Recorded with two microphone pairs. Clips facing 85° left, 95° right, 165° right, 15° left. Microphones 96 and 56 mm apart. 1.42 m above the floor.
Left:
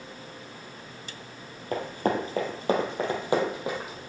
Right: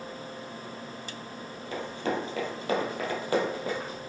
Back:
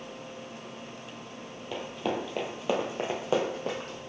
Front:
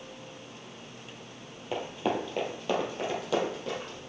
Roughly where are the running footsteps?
Left.